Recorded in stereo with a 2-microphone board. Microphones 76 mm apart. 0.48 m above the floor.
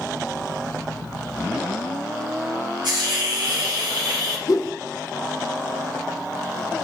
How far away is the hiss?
About 4 m.